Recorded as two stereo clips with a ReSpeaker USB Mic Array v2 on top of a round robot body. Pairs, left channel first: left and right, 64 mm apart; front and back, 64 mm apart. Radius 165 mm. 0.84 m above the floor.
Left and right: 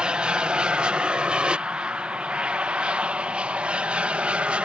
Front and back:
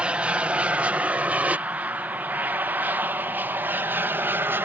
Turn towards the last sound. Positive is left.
turn(degrees=-150)